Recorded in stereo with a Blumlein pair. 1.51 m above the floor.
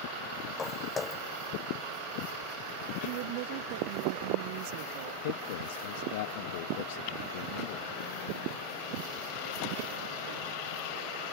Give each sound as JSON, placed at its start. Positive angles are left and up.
{"t": 0.6, "sound": "footsteps", "azimuth_deg": 15}
{"t": 3.0, "sound": "a woman speaking", "azimuth_deg": -50}
{"t": 5.2, "sound": "a man speaking", "azimuth_deg": 50}